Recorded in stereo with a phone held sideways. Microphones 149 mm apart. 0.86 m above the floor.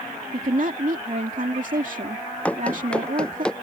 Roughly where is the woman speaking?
Right.